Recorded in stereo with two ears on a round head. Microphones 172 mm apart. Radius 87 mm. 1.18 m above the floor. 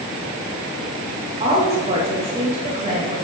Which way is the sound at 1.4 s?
35° right (ahead or behind).